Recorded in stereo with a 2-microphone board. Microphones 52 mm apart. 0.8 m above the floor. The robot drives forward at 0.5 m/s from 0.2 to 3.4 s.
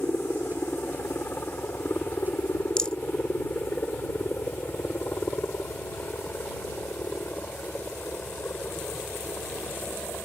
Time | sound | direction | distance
0.0 | a helicopter | 45° left (ahead or behind) | ?
2.8 | a rattle | 15° left (ahead or behind) | ?